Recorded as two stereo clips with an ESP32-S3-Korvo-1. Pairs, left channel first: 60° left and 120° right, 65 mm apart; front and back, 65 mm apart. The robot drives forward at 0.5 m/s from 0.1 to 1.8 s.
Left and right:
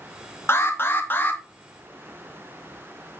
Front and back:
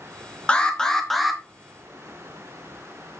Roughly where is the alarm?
Ahead left.